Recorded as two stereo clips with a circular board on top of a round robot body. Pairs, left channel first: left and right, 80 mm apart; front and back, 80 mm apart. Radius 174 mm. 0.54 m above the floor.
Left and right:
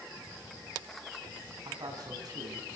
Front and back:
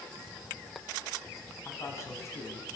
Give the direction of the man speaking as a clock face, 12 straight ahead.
2 o'clock.